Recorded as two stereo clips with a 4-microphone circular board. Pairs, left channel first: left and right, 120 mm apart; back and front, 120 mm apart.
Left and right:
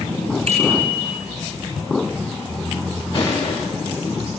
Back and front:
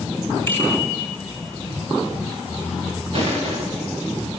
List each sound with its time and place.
0.5 s a bicycle bell: 110° right, 6.5 m
3.1 s crushing: 30° left, 7.5 m